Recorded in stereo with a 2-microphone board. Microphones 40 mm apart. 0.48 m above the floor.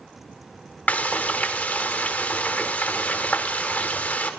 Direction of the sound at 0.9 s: 45° left (ahead or behind).